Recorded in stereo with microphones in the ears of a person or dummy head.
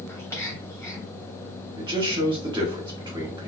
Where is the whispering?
20° left (ahead or behind), 1.0 m.